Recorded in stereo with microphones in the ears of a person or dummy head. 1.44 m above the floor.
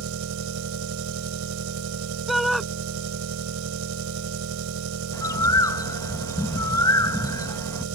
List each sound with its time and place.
0.0 s an engine running: 80° right
2.3 s a shout: centre (ahead or behind)
5.1 s a bird: 15° left (ahead or behind)